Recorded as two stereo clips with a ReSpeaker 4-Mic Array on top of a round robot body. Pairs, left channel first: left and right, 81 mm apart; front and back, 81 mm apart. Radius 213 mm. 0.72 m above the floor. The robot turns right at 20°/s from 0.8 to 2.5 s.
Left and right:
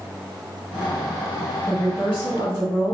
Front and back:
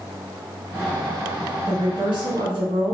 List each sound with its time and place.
1.7 s a woman speaking: 150° left, 1.6 m; by 2.9 s 165° left, 1.6 m